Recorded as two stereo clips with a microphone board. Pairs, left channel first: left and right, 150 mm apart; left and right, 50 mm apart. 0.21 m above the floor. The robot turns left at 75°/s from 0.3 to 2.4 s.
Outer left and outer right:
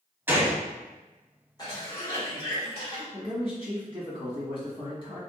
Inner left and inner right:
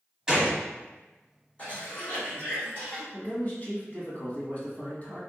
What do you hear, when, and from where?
0.3 s a gunshot: 15° right (ahead or behind), 0.8 m; by 0.6 s 10° right (ahead or behind), 0.8 m
1.6 s a cough: 140° left, 1.7 m; by 3.0 s 80° left, 1.7 m
3.1 s a man speaking: 35° left (ahead or behind), 1.4 m